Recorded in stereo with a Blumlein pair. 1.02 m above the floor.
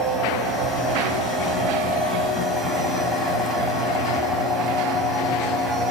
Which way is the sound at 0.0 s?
5° left.